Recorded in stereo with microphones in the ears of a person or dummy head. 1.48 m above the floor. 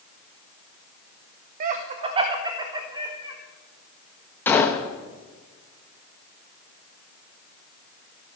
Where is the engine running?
No engine running in this recording.